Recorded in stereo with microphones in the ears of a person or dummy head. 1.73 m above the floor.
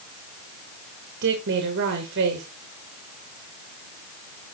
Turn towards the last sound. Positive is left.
turn(degrees=-60)  # may be behind; listen again after turning